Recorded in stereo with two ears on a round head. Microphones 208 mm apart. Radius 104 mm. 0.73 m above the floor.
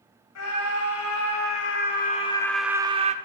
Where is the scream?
75° left (ahead or behind), 3 m; by 3.1 s 35° right (ahead or behind), 1.5 m.